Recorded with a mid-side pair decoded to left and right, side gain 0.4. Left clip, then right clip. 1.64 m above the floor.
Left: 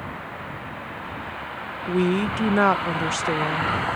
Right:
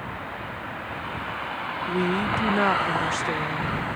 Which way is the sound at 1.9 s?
35° left.